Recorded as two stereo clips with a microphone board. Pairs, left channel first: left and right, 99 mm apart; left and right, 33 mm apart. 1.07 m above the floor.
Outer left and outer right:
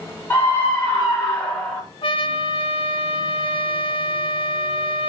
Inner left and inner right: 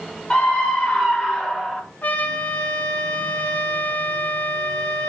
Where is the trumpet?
65° left (ahead or behind), 1.7 m.